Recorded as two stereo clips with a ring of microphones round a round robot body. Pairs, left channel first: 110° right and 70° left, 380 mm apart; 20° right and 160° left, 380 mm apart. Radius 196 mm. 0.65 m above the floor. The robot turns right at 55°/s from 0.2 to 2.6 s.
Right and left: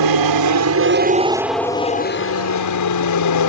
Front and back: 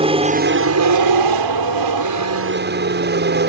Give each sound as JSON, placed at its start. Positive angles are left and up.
{"t": 0.0, "sound": "an aircraft", "azimuth_deg": 85}